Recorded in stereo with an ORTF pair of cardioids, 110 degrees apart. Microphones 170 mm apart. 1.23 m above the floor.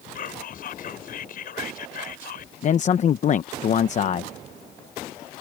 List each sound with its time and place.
0.1 s whispering: 55° left
2.6 s a man speaking: 45° left